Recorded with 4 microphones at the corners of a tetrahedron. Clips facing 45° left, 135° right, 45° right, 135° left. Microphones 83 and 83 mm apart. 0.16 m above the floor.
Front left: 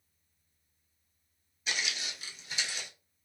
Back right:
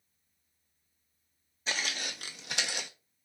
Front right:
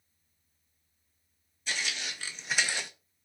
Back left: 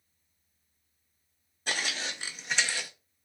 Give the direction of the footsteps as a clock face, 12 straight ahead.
6 o'clock.